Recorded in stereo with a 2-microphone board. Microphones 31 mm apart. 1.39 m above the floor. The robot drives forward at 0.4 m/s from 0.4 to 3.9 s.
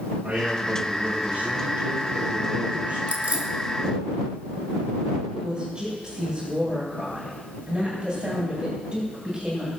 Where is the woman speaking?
35° right (ahead or behind), 8.5 m.